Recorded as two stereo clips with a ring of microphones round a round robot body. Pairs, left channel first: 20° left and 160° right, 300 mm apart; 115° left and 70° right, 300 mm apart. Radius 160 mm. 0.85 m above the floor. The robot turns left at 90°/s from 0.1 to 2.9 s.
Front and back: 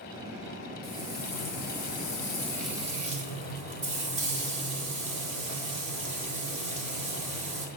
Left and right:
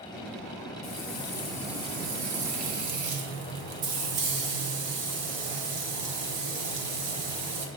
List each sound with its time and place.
0.8 s frying: 95° left, 1.5 m; by 7.7 s 90° right, 1.5 m